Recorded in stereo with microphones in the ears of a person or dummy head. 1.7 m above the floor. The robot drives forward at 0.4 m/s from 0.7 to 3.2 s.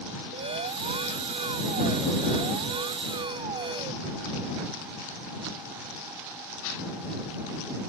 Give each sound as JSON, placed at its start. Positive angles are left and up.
{"t": 0.3, "sound": "an alarm", "side_deg": -30}